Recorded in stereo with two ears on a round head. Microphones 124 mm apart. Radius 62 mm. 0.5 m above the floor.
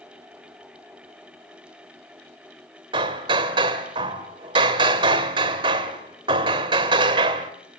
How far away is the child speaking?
No child speaking in this recording.